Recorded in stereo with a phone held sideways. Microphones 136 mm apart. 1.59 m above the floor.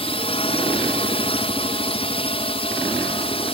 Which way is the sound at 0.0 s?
45° left (ahead or behind).